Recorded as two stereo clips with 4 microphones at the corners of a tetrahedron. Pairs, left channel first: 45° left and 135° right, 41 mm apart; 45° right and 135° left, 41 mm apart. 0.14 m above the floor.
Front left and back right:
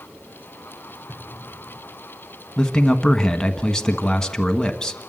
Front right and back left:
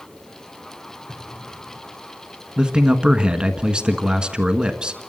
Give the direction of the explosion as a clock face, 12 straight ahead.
2 o'clock.